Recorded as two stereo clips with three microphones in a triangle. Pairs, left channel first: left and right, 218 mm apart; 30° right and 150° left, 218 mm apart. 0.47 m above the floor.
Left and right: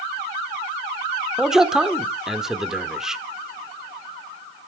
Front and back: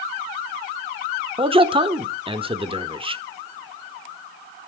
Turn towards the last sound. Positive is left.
turn(degrees=-175)